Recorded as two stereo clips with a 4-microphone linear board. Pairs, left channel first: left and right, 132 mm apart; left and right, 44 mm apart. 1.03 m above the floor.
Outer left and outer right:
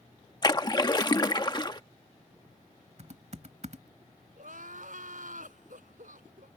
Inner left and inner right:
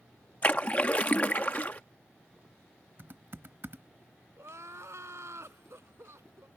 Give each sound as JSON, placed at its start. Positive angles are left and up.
{"t": 0.4, "sound": "a splash", "side_deg": 30}
{"t": 3.0, "sound": "typing on a keyboard", "side_deg": -55}
{"t": 4.4, "sound": "crying", "side_deg": -75}